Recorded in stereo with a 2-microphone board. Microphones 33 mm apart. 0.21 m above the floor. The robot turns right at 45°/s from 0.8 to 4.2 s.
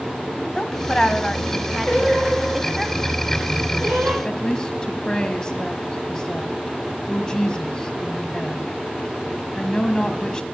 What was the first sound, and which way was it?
A woman speaking, 20° left (ahead or behind).